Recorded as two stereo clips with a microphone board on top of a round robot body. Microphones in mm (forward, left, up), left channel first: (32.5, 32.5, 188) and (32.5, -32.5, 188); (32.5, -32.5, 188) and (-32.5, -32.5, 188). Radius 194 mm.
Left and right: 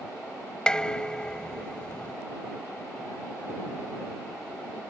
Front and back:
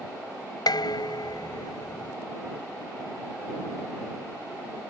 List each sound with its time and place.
0.7 s dishes clattering: 10° left